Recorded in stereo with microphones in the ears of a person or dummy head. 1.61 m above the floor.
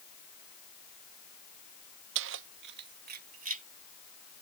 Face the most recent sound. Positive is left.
turn(degrees=-40)  # may be behind; listen again after turning